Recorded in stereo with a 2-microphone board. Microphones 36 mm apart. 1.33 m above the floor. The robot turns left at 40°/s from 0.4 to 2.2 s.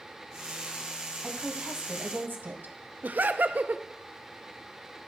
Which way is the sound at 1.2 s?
40° right.